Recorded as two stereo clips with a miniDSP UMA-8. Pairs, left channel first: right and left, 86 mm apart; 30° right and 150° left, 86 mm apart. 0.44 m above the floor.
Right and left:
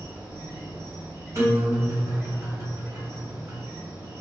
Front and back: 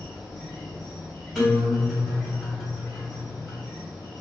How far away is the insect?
About 1.2 m.